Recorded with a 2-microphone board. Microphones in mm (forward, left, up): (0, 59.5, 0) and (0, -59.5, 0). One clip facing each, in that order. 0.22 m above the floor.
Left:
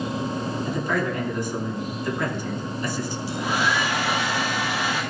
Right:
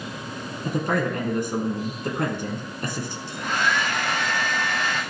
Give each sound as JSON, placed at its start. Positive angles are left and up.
{"t": 0.7, "sound": "a man speaking", "side_deg": -55, "distance_m": 3.0}
{"t": 3.3, "sound": "a hair dryer", "side_deg": 10, "distance_m": 3.0}